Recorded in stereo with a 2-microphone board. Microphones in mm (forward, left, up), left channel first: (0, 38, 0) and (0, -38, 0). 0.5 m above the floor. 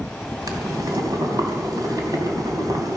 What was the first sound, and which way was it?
Boiling, 60° right (ahead or behind).